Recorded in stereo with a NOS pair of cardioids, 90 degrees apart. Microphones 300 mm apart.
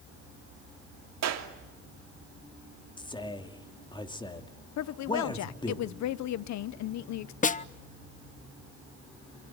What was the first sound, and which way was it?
A clap, 60° right.